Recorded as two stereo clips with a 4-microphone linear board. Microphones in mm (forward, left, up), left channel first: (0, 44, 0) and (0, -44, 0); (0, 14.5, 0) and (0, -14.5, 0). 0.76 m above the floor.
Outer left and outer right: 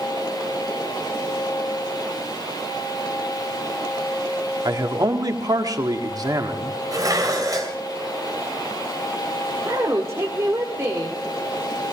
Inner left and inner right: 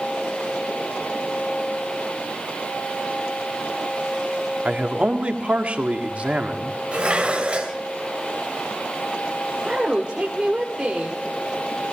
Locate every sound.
4.7 s a man speaking: 45° right (ahead or behind), 1.8 m
6.9 s dishes clattering: 40° right (ahead or behind), 2.5 m
9.7 s a woman speaking: 30° right (ahead or behind), 2 m